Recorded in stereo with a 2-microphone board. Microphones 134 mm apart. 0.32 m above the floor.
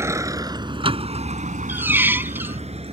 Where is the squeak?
15° right (ahead or behind).